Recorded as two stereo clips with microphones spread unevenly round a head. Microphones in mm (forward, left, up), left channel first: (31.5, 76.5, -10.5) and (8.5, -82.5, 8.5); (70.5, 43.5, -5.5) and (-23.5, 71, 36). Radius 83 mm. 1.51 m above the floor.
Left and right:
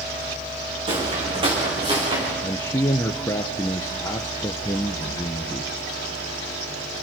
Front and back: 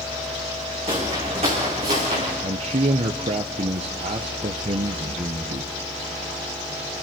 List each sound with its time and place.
0.9 s footsteps: 155° right, 6 m; by 2.3 s 165° right, 7.5 m
2.4 s a man speaking: 155° left, 0.8 m